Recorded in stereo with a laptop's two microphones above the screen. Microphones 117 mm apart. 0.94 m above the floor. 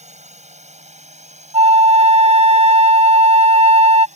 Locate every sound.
0.0 s a drone: 75° right (ahead or behind); by 4.2 s 80° right
1.5 s a flute: 60° right (ahead or behind)